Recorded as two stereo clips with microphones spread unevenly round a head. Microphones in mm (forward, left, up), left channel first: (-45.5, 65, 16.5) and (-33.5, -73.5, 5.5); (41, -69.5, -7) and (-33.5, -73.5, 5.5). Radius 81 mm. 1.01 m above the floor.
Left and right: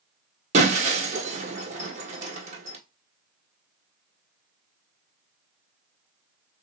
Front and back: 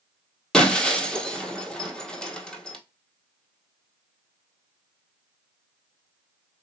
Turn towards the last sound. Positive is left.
turn(degrees=-85)